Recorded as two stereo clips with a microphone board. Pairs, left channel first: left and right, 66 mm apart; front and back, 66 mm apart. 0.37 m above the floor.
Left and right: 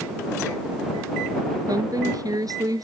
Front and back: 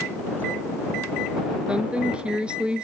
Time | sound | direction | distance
1.7 | a woman speaking | 105° right | ?